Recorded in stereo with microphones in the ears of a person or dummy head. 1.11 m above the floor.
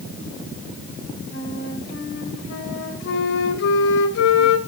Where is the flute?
65° left (ahead or behind), 1.6 m.